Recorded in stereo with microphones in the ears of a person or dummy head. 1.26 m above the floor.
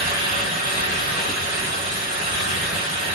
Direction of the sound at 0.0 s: 70° right (ahead or behind).